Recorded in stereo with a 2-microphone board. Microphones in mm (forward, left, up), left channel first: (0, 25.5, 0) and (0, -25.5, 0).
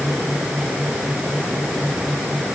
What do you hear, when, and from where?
Only background noise.